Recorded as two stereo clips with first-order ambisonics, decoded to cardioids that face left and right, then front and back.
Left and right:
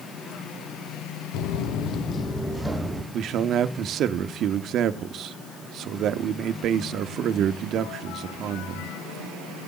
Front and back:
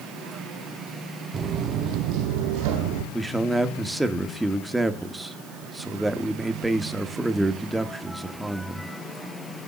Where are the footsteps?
110° left, 1.4 m; by 3.0 s 170° right, 2.5 m.